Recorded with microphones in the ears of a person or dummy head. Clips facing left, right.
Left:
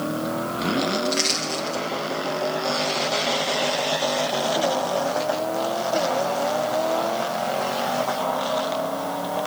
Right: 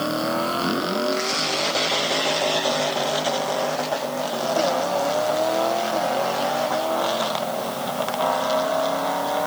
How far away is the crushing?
About 9.5 m.